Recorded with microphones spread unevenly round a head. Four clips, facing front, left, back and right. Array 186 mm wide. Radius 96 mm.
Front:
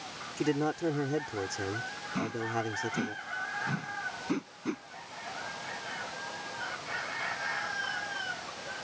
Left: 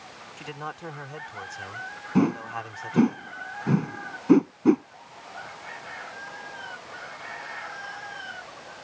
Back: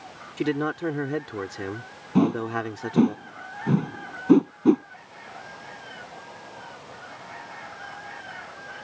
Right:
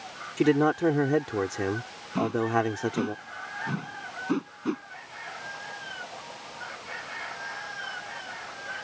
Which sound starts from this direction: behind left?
A whoosh, at 2.1 s.